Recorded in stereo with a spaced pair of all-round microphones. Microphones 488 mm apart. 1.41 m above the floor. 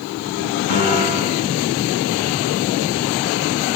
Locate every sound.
0.7 s a piano: 60° left (ahead or behind), 9 m